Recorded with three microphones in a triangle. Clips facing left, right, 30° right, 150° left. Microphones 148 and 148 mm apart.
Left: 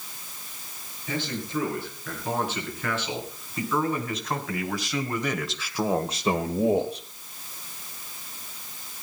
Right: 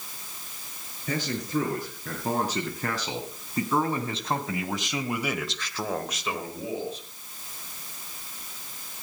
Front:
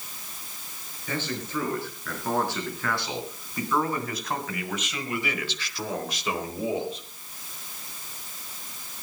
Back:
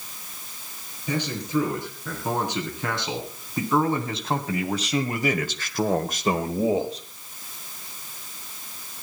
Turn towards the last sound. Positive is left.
turn(degrees=85)